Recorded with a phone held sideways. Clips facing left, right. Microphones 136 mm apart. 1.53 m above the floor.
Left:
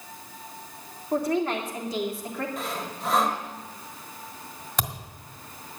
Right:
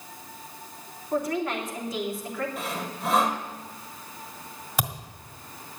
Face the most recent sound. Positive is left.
turn(degrees=-5)  # may be behind; listen again after turning